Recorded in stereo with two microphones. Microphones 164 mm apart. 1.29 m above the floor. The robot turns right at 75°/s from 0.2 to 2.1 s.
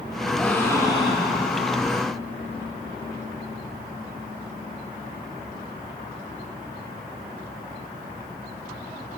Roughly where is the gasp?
Ahead.